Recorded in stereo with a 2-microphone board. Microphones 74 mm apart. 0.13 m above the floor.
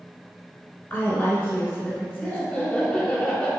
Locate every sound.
0.9 s a woman speaking: 25° left (ahead or behind), 1.5 m
2.2 s laughter: 15° left (ahead or behind), 1.2 m